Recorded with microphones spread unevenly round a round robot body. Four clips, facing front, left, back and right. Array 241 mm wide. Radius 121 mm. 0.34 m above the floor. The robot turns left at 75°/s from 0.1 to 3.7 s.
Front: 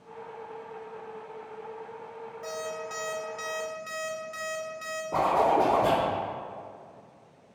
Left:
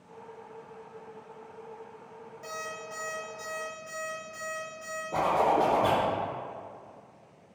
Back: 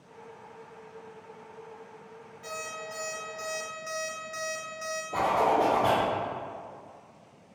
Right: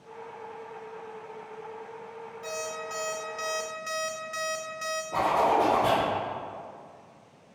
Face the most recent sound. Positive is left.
turn(degrees=10)